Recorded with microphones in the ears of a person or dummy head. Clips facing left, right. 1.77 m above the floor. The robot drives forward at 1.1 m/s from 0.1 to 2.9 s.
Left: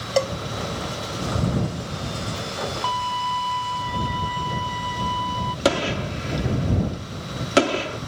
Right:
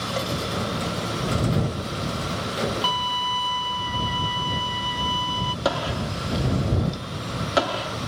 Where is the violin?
40° right (ahead or behind).